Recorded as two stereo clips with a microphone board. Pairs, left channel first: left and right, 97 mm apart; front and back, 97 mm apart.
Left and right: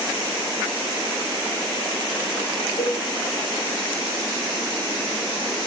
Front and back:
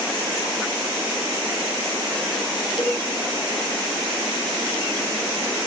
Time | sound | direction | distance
2.8 | a cowbell | 65° left | 5.5 m